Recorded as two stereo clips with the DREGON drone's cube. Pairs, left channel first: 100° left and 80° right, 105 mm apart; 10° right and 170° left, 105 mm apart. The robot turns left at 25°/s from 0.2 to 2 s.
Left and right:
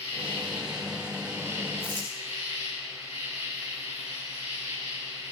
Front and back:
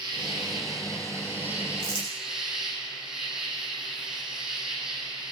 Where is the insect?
130° left, 7 m; by 5.3 s 85° left, 7 m.